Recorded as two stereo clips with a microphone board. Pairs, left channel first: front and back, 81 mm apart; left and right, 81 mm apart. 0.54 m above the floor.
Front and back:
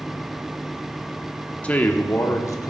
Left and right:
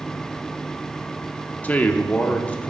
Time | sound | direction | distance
1.6 | a man speaking | 50° left | 0.7 m